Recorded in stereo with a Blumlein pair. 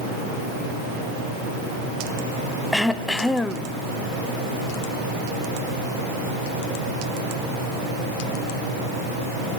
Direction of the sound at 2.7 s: 5° left.